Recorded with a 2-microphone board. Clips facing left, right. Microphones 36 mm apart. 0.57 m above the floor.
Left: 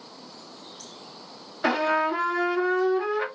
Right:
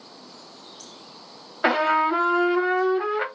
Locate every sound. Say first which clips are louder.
1.6 s a trumpet: right 3 dB; 25° right (ahead or behind), 0.8 m